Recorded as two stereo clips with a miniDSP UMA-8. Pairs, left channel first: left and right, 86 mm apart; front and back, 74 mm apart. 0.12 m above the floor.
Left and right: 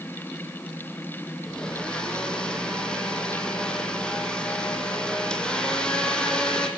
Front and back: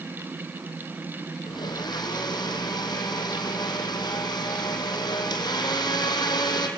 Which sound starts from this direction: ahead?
A blender, at 1.5 s.